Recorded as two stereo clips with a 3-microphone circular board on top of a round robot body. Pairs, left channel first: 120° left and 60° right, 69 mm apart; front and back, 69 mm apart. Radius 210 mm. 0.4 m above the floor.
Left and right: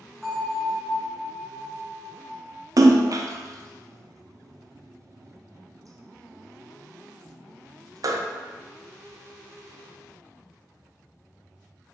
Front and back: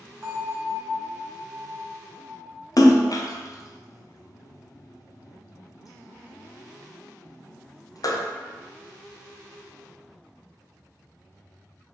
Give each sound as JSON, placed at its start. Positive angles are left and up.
{"t": 0.2, "sound": "a bell", "azimuth_deg": -150, "distance_m": 1.2}
{"t": 2.8, "sound": "a splash", "azimuth_deg": -30, "distance_m": 0.5}